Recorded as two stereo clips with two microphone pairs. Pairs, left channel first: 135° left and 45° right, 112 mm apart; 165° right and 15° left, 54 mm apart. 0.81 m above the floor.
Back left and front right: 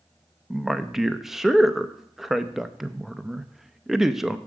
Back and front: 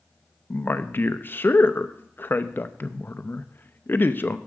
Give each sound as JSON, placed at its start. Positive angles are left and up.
{"t": 0.5, "sound": "a man speaking", "azimuth_deg": -130, "distance_m": 0.5}